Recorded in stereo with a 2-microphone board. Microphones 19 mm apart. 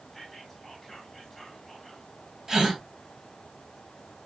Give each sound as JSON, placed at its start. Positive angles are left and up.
{"t": 0.1, "sound": "whispering", "side_deg": 5, "distance_m": 2.5}
{"t": 2.5, "sound": "a gasp", "side_deg": -30, "distance_m": 1.9}